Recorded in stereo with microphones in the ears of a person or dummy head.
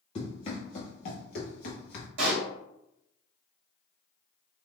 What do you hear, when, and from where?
0.1 s running footsteps: 25° left (ahead or behind), 1.8 m; by 2.1 s 40° left (ahead or behind), 1.6 m
2.2 s a pop: 60° right (ahead or behind), 2 m